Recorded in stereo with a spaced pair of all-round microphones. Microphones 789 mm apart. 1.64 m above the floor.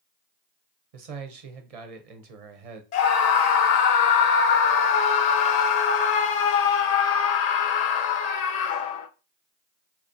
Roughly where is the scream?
Left.